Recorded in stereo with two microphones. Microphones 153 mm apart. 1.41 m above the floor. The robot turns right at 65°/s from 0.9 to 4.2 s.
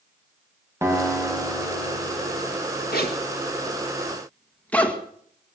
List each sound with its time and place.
0.8 s a guitar: 15° right, 4.5 m; by 2.4 s 80° left, 4.5 m
2.9 s a zipper: 85° left, 1.8 m; by 5.0 s 10° left (ahead or behind), 1.8 m